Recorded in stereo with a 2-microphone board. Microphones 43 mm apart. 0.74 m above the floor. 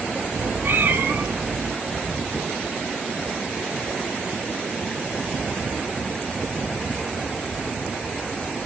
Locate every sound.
0.3 s a cat meowing: 55° right (ahead or behind), 1.7 m